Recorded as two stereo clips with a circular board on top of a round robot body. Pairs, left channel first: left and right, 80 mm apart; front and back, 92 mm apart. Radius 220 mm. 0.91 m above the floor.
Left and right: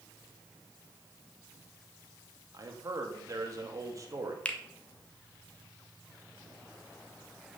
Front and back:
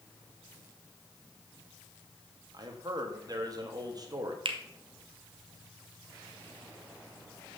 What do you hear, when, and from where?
2.5 s a man speaking: 135° right, 2.5 m
4.5 s a finger snap: 165° left, 1.6 m